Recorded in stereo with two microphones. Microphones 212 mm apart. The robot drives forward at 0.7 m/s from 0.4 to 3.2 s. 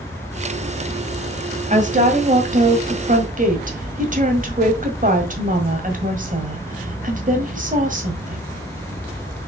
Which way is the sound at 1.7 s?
35° right (ahead or behind).